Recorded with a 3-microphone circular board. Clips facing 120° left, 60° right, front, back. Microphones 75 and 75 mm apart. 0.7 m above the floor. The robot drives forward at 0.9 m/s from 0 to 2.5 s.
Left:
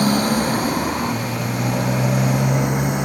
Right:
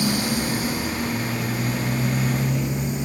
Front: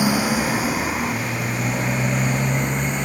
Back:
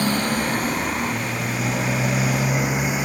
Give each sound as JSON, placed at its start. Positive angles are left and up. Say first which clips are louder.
{"t": 0.0, "sound": "a motorcycle", "louder": "left 6 dB, front 2 dB", "azimuth_deg": 80}